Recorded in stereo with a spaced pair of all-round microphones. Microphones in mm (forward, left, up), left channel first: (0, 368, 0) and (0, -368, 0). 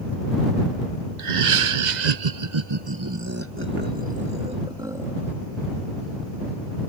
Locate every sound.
1.2 s laughter: 70° right (ahead or behind); by 5.3 s centre (ahead or behind)